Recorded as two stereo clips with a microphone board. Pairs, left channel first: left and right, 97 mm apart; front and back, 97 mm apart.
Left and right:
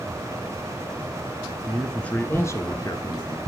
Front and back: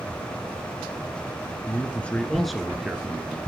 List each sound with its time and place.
1.7 s a man speaking: 10° right, 1.1 m; by 3.4 s 110° left, 1.7 m